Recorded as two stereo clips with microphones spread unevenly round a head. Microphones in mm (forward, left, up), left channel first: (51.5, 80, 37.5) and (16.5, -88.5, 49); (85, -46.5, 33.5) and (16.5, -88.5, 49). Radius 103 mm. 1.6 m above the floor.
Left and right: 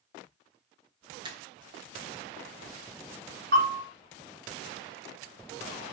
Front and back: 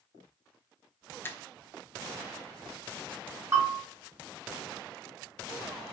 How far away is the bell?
About 1.0 m.